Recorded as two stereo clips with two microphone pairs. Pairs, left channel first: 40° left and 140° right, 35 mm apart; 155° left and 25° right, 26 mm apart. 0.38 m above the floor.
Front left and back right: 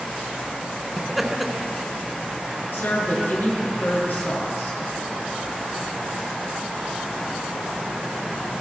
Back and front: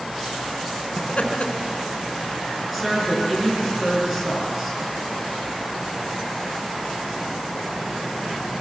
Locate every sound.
1.0 s laughter: 135° left, 3.5 m
2.7 s a woman speaking: 55° left, 7 m